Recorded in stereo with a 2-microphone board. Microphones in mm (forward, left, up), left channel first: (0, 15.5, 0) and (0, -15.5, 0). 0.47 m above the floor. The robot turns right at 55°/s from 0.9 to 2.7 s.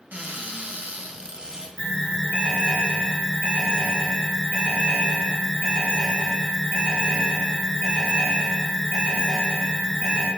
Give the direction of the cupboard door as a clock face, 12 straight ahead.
2 o'clock.